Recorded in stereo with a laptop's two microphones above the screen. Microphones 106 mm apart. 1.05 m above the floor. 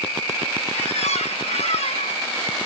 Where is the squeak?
80° left, 0.8 m.